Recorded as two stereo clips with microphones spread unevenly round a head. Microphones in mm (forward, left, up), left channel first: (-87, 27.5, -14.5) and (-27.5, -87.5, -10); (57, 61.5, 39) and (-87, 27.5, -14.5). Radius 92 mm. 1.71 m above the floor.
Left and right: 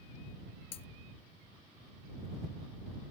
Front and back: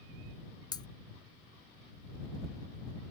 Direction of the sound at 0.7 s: 65° left.